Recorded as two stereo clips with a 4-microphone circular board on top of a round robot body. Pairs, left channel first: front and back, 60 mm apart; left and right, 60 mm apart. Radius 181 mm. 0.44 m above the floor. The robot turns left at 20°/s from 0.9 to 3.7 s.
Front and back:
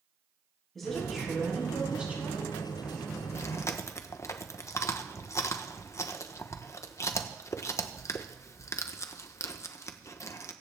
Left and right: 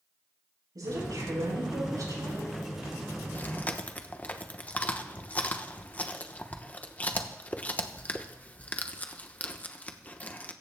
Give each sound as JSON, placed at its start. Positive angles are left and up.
{"t": 0.8, "sound": "a woman speaking", "azimuth_deg": -85, "distance_m": 8.0}
{"t": 3.3, "sound": "chewing", "azimuth_deg": 35, "distance_m": 1.1}